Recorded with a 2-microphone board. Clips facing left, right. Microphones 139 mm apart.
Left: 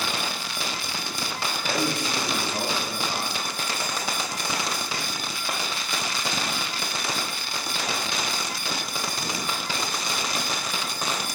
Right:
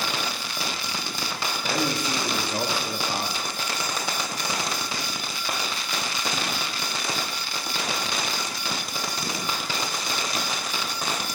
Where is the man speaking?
15° right (ahead or behind), 0.9 m; by 3.6 s 45° right (ahead or behind), 0.9 m.